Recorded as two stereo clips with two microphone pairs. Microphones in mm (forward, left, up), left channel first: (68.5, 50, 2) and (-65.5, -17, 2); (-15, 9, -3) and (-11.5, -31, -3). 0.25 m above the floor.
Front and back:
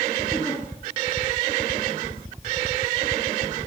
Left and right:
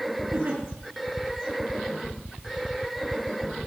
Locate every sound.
0.3 s a giggle: 45° right, 6 m